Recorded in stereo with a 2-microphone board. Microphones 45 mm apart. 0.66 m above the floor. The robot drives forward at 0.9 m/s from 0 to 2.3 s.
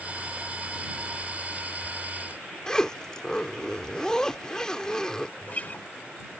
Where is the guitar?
40° left (ahead or behind).